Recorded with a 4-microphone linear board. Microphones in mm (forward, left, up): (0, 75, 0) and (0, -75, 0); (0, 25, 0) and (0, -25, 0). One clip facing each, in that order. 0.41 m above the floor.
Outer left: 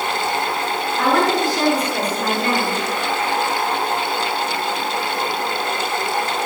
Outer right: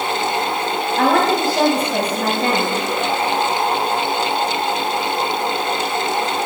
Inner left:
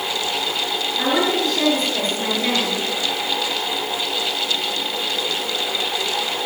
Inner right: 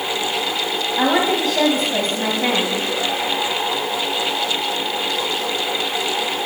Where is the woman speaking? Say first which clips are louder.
Outer right 2 dB, inner right 2 dB; 65° right (ahead or behind), 2.5 m.